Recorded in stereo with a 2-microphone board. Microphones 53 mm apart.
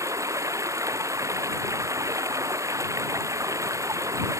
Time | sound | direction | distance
0.0 | running water | 80° right | ?